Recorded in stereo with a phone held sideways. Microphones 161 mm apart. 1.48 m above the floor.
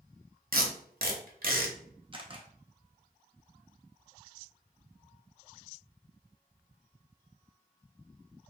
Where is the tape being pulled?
65° right (ahead or behind), 0.8 m.